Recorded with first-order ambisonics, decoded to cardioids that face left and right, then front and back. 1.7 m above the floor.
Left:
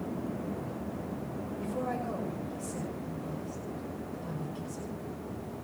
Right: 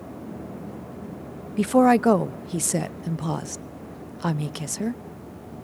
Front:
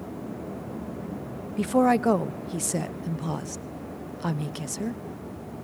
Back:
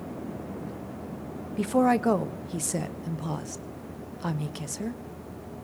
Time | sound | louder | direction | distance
1.6 | a woman speaking | right 18 dB, front 2 dB | 85° right | 0.7 m